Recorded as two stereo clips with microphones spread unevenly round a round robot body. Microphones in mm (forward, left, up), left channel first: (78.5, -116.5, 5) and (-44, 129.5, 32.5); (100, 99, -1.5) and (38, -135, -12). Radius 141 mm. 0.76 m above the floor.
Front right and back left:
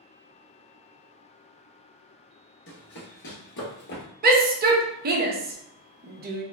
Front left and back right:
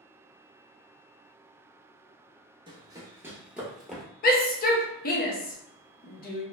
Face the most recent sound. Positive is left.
turn(degrees=85)